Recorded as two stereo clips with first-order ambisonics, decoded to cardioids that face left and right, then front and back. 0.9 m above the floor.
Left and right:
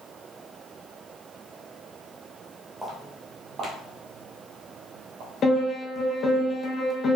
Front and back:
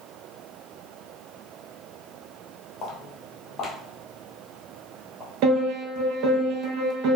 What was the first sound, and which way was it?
Footsteps, straight ahead.